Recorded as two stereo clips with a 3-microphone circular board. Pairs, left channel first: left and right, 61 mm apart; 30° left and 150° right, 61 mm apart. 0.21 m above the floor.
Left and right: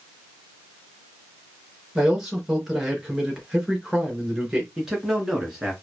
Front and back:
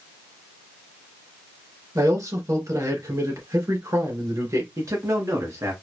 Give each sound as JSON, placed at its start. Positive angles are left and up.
{"t": 1.9, "sound": "a man speaking", "azimuth_deg": -170, "distance_m": 3.0}
{"t": 4.8, "sound": "a man speaking", "azimuth_deg": -170, "distance_m": 2.5}